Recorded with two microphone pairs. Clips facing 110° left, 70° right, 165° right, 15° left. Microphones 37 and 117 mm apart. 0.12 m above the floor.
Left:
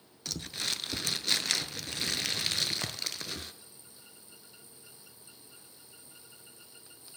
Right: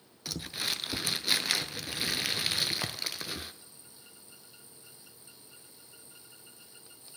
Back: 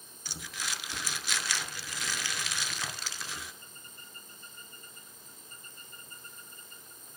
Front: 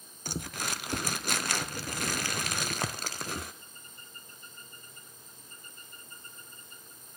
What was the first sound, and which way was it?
Crumpling, 15° left.